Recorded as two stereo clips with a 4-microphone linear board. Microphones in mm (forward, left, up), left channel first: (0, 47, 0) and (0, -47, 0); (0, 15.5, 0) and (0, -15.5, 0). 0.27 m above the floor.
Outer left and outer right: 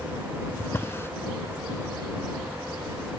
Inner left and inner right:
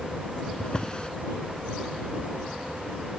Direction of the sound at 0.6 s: 30° left (ahead or behind).